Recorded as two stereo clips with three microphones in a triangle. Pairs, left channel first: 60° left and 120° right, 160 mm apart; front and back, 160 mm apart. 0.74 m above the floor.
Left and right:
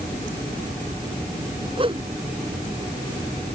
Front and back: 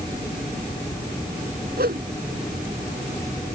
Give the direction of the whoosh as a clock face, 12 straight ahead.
6 o'clock.